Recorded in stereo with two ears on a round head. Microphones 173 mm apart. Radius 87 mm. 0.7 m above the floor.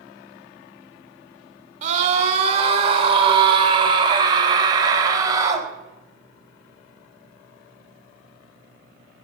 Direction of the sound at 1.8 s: 40° right (ahead or behind).